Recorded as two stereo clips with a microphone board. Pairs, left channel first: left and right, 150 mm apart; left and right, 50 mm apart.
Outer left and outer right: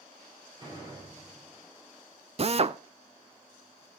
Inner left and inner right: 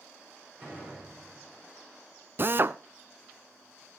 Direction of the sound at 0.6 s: 30° right (ahead or behind).